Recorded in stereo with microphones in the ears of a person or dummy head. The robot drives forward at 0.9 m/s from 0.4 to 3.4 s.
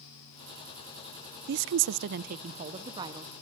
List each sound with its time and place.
1.5 s a woman speaking: 55° right (ahead or behind), 0.5 m; by 3.3 s 20° right (ahead or behind), 1.5 m